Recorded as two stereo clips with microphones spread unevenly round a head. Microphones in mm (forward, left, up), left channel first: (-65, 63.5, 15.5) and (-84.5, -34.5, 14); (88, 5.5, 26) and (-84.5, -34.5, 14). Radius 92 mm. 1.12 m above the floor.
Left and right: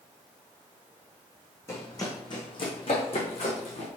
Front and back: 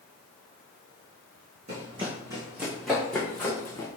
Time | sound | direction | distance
1.7 | running footsteps | 140° left | 2.5 m